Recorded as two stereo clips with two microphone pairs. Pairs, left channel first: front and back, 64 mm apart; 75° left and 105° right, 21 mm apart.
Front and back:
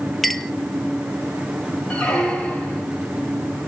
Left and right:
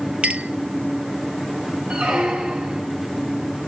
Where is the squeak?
75° right, 5.5 m.